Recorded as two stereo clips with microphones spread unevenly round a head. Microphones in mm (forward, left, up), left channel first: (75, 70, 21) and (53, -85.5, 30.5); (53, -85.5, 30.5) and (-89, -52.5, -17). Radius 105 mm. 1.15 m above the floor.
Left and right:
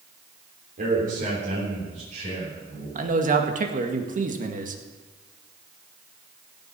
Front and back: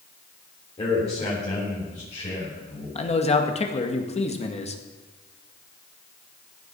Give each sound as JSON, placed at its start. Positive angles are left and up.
{"t": 0.8, "sound": "a man speaking", "azimuth_deg": -65, "distance_m": 3.5}
{"t": 3.0, "sound": "a man speaking", "azimuth_deg": -65, "distance_m": 2.0}